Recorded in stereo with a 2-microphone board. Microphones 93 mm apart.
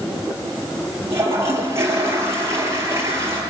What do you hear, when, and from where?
1.1 s a toilet flushing: 30° right (ahead or behind), 7.5 m